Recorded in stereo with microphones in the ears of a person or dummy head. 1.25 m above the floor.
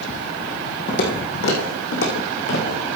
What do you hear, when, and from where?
0.9 s footsteps: 55° left (ahead or behind), 3.5 m; by 2.8 s 75° left (ahead or behind), 6 m